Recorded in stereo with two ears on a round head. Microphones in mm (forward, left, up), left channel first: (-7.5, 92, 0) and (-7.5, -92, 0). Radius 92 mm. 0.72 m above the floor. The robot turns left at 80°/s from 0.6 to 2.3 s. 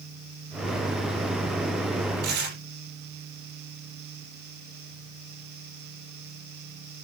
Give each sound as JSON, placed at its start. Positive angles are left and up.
{"t": 2.2, "sound": "tearing paper", "side_deg": -45, "distance_m": 7.5}